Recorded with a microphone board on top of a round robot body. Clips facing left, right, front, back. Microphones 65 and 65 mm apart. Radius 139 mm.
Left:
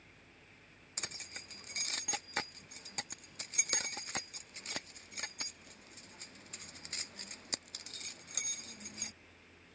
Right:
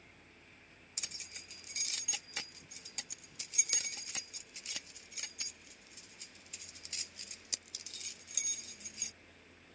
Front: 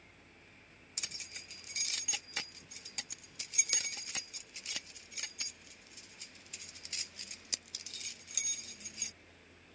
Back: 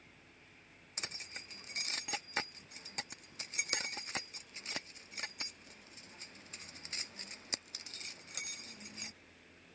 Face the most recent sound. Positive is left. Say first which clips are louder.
# left 5 dB, back 3 dB
turn(degrees=125)